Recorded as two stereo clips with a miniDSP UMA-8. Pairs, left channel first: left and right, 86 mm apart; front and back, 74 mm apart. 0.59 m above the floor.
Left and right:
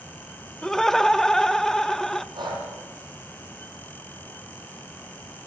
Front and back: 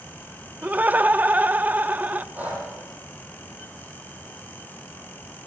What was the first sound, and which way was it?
Laughter, 165° left.